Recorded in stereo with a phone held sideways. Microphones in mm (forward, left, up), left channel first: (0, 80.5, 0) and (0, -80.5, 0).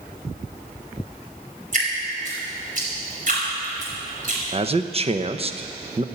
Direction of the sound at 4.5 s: 40° right (ahead or behind).